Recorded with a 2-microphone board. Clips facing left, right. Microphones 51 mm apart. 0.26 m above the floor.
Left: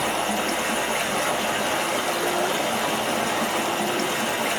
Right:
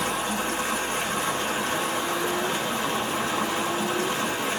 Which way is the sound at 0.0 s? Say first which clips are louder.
Left 3 dB; 85° left.